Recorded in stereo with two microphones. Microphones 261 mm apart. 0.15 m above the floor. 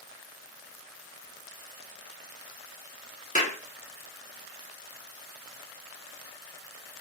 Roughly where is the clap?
Left.